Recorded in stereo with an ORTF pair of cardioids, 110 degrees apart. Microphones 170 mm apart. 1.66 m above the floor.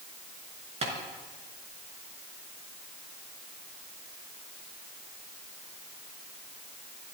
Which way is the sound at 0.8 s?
40° right.